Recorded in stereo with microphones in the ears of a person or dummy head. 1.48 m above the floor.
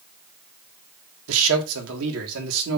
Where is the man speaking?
80° right, 1.6 m.